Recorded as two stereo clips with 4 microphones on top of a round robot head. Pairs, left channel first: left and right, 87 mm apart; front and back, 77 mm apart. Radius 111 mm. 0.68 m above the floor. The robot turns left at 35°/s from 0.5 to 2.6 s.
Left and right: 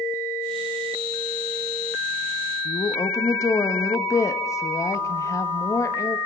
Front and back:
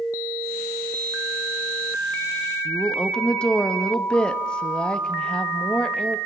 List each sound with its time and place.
2.6 s a woman speaking: 70° left, 1.2 m